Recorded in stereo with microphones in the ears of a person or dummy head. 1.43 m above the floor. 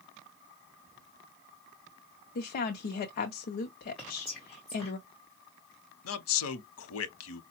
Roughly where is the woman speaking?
Left.